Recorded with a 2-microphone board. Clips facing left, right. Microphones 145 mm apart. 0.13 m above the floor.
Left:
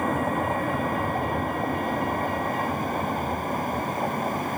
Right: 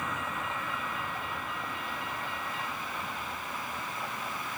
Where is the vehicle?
50° left (ahead or behind).